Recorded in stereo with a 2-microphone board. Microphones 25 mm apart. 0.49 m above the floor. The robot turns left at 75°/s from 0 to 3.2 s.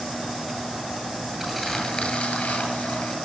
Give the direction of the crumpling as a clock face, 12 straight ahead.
6 o'clock.